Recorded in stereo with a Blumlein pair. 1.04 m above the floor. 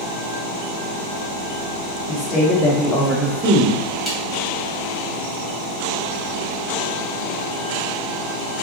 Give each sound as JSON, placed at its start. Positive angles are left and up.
{"t": 2.1, "sound": "a woman speaking", "azimuth_deg": 30, "distance_m": 1.1}
{"t": 4.1, "sound": "a snare drum", "azimuth_deg": 5, "distance_m": 1.2}